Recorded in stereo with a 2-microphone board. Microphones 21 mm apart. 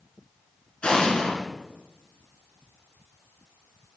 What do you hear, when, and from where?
0.8 s an explosion: 75° left (ahead or behind), 2.5 m